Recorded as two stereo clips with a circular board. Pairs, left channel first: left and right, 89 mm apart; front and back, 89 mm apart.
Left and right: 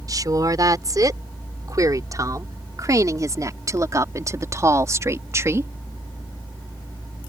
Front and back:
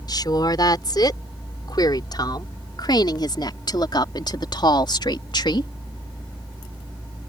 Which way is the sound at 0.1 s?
40° right.